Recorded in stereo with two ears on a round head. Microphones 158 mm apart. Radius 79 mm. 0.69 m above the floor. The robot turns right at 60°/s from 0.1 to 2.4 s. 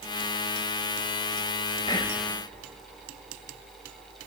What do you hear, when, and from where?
1.9 s whispering: 25° left (ahead or behind), 1.2 m; by 2.2 s 30° left (ahead or behind), 1.2 m